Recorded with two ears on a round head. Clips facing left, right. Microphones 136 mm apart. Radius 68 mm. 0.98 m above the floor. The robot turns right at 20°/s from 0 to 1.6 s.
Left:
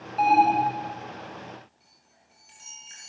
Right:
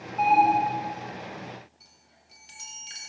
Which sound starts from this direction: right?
A chime, at 1.8 s.